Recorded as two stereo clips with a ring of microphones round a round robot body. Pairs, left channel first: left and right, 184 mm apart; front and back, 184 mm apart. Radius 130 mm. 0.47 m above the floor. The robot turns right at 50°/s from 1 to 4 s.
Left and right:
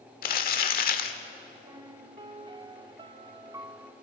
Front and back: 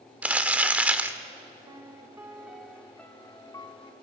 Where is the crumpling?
100° left, 1.3 m; by 1.2 s 110° left, 1.3 m.